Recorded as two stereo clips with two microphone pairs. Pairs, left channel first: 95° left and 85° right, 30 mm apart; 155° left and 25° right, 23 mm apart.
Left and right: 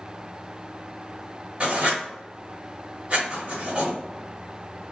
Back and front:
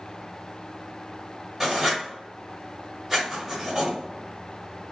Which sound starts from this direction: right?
Writing, at 1.6 s.